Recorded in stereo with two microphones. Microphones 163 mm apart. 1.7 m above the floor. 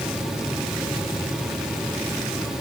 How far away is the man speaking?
I don't hear a man speaking.